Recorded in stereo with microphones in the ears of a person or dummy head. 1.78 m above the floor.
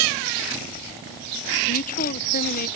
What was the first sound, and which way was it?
A woman speaking, 45° left (ahead or behind).